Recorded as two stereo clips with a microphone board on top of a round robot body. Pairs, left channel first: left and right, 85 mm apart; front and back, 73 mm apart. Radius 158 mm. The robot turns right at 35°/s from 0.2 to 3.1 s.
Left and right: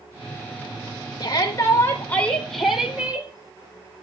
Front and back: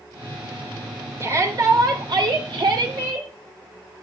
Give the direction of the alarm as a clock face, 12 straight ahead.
I don't hear an alarm.